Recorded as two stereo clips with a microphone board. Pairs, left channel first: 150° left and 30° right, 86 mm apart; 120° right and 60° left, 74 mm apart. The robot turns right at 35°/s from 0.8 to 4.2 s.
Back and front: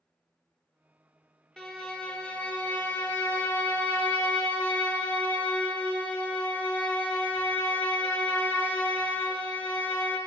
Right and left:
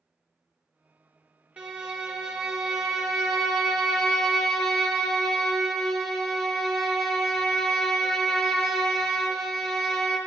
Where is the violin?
80° left, 0.8 m; by 10.2 s 175° left, 0.8 m.